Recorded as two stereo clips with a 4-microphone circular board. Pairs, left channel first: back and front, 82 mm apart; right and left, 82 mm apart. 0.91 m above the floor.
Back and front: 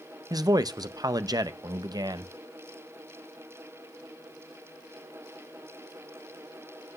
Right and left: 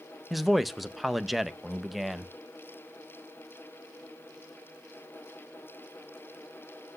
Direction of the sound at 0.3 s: Straight ahead.